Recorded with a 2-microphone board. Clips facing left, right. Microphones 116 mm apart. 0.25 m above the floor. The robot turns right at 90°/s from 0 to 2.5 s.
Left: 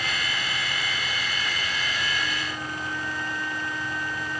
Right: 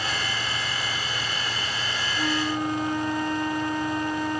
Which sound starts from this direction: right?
A flute, at 2.2 s.